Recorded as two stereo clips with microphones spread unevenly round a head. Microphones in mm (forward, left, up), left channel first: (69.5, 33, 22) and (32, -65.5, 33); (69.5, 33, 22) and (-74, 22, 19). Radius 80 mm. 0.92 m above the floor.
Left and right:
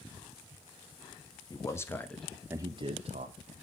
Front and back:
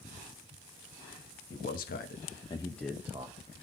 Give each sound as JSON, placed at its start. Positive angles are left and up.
{"t": 1.5, "sound": "a man speaking", "azimuth_deg": 15, "distance_m": 1.7}